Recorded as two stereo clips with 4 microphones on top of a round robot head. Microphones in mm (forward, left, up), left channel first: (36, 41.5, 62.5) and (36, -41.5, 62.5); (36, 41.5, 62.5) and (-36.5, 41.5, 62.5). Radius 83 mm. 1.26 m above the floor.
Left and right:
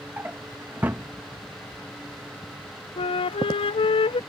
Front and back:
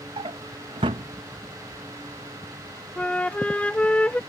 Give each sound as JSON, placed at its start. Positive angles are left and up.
{"t": 0.2, "sound": "a drawer", "azimuth_deg": -165}
{"t": 3.0, "sound": "a flute", "azimuth_deg": 75}